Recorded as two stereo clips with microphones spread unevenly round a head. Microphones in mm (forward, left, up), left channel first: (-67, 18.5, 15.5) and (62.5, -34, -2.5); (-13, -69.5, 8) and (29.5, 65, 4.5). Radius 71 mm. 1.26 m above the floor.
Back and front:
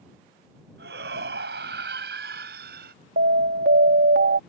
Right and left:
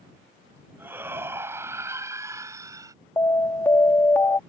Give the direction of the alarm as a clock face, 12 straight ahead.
1 o'clock.